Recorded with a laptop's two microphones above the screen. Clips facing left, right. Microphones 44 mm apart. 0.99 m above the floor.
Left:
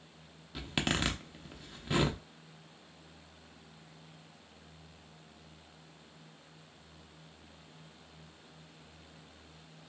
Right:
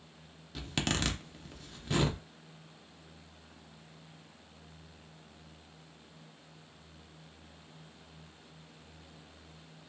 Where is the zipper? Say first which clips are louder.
Left 1 dB; 10° left (ahead or behind), 0.6 m.